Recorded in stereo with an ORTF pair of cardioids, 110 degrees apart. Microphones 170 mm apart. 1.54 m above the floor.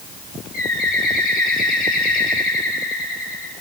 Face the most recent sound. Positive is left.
turn(degrees=60)